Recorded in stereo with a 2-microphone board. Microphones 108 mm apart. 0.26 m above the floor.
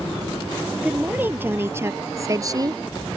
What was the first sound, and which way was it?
A woman speaking, 15° right (ahead or behind).